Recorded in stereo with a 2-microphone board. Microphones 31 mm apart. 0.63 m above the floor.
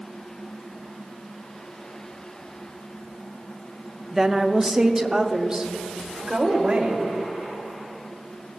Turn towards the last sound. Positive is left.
turn(degrees=-25)  # may be behind; listen again after turning